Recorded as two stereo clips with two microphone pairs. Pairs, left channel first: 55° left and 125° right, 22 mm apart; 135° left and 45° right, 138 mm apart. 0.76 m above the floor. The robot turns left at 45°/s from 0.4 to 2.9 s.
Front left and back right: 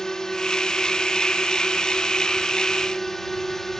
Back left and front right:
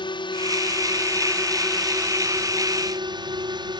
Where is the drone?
105° left; by 3.8 s 10° right.